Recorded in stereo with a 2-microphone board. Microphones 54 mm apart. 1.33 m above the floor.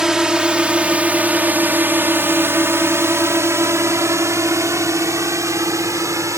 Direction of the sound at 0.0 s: 15° right (ahead or behind).